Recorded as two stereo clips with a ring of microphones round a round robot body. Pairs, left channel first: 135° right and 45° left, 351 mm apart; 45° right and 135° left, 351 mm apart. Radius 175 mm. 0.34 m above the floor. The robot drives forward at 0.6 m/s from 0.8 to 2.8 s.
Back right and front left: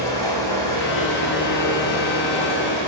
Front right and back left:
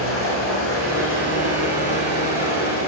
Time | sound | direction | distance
0.0 | running water | 100° right | 6 m